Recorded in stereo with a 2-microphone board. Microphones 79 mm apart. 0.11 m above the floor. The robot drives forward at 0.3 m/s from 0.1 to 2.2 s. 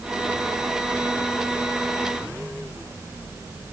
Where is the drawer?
I don't hear a drawer.